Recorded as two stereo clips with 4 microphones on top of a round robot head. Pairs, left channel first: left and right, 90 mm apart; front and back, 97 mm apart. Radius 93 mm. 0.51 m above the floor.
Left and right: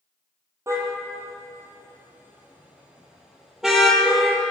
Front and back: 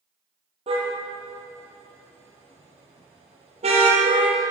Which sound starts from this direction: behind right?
A car horn, at 0.7 s.